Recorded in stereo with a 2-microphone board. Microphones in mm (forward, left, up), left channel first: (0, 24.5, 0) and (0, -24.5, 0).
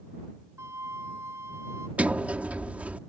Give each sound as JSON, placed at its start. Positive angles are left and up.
{"t": 0.6, "sound": "a flute", "side_deg": -65}
{"t": 2.0, "sound": "a sliding door", "side_deg": -30}